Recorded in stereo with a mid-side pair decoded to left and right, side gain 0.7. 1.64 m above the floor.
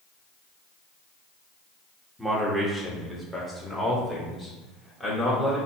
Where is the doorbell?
I don't hear a doorbell.